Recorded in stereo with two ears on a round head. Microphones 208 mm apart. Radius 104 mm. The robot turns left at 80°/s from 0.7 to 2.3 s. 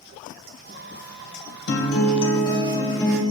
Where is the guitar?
70° left, 2 m; by 3.2 s 20° left, 2 m.